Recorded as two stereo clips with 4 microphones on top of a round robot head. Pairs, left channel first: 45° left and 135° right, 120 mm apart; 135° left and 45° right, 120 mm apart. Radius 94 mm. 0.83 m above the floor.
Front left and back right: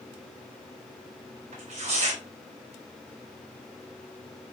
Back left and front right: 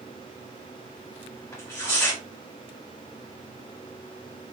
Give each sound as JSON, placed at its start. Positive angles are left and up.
{"t": 1.5, "sound": "tearing paper", "azimuth_deg": -155, "distance_m": 4.0}